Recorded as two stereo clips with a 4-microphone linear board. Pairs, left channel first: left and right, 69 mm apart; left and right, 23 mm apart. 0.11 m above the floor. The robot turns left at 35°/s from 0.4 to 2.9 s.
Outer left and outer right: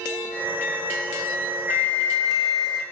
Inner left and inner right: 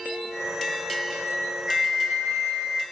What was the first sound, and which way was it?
A flute, 40° right.